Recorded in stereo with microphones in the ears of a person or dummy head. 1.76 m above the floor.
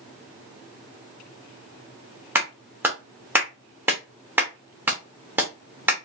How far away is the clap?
About 1.0 m.